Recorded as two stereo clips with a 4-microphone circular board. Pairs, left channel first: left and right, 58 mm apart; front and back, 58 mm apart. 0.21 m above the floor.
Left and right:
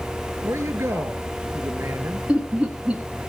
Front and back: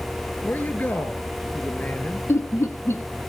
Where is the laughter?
25° right, 1.8 m.